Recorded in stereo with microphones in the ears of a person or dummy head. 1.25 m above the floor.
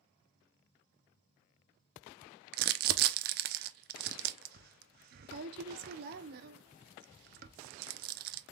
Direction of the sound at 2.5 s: 50° right (ahead or behind).